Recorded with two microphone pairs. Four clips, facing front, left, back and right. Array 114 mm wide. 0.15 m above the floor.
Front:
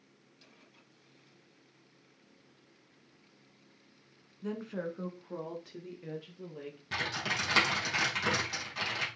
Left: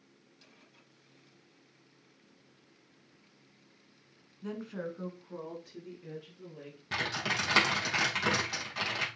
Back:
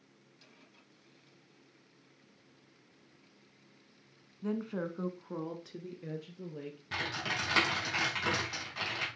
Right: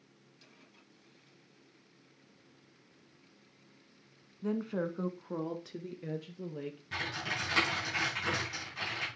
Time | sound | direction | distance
4.4 | a woman speaking | 155° right | 1.1 m
6.9 | typing on a keyboard | 110° left | 3.5 m